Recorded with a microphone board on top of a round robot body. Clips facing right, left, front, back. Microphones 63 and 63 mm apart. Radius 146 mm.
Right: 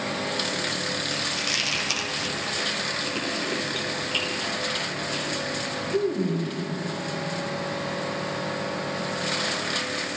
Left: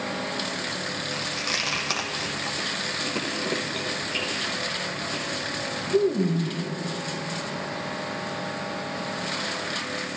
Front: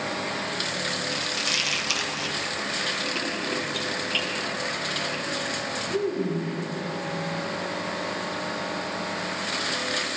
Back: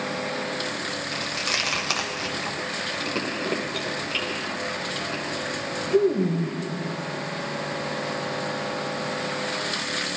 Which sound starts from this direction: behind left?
Chewing, at 1.1 s.